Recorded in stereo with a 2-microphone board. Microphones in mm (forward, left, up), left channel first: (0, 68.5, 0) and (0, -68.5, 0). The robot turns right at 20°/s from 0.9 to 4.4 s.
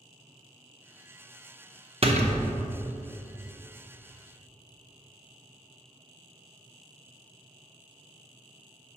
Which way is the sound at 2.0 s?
45° right (ahead or behind).